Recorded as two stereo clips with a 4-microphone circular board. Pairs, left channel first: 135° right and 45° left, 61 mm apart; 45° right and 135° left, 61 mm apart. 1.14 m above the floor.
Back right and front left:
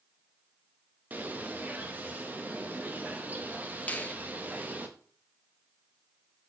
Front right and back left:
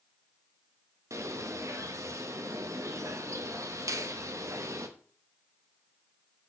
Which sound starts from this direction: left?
A bird, at 1.1 s.